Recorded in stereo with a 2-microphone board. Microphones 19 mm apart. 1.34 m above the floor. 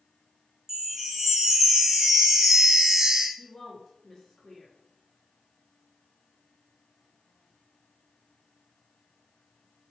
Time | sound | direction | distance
0.7 | a chime | 30° right (ahead or behind) | 0.7 m
3.4 | a woman speaking | 25° left (ahead or behind) | 1.6 m